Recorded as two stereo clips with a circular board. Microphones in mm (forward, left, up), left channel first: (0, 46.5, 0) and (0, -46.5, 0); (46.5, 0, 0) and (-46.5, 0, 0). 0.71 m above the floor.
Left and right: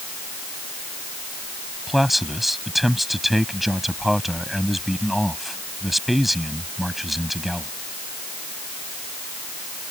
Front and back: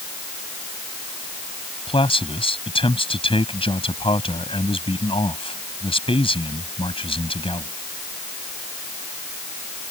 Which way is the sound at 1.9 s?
Straight ahead.